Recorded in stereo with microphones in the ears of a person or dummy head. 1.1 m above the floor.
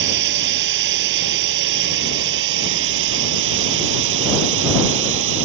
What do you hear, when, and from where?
0.0 s a drone: 60° right (ahead or behind); by 5.5 s 70° right (ahead or behind)